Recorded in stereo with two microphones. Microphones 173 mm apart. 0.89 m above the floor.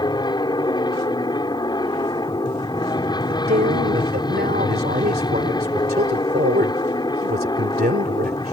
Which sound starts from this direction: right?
A man speaking, at 3.3 s.